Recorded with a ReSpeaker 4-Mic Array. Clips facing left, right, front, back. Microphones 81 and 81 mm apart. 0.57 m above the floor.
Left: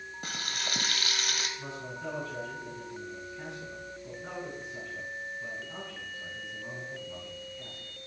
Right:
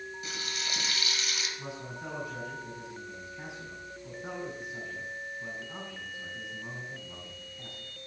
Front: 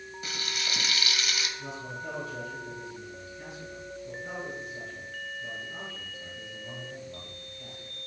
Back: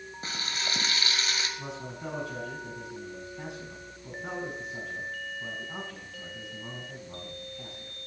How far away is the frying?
About 1.6 m.